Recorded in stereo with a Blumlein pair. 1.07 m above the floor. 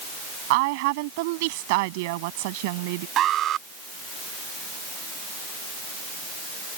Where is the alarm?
30° right.